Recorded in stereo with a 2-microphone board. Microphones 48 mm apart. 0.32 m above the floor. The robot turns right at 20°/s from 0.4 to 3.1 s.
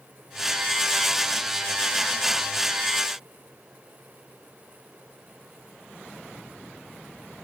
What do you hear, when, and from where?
Only background noise.